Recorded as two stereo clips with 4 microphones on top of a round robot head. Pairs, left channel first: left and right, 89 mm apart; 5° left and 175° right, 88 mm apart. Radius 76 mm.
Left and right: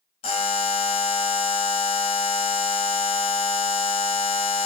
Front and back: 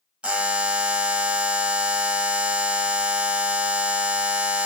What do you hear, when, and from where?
0.2 s a buzzer: 110° left, 0.8 m